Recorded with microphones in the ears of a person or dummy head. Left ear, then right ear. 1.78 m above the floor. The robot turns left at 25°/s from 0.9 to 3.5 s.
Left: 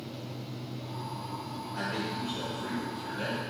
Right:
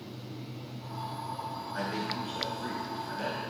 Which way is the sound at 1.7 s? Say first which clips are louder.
Left 1 dB; 125° right.